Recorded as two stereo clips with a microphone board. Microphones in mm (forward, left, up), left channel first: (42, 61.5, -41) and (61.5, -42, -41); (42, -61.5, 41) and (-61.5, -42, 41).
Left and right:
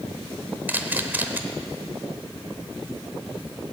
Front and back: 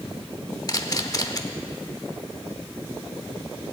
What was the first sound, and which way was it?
A camera shutter, 25° right.